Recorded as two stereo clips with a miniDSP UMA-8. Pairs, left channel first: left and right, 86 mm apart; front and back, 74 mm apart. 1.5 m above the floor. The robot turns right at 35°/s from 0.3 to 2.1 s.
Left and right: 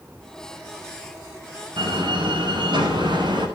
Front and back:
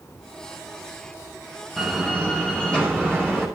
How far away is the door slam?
About 9.5 m.